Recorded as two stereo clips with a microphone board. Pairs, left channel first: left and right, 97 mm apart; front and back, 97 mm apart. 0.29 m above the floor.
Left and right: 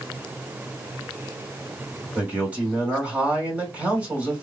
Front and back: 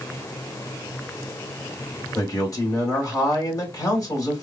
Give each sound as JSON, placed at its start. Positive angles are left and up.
{"t": 2.1, "sound": "a man speaking", "azimuth_deg": -25, "distance_m": 1.8}